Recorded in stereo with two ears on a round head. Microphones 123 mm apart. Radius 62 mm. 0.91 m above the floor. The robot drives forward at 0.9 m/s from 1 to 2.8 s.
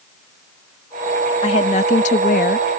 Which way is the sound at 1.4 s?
40° left (ahead or behind).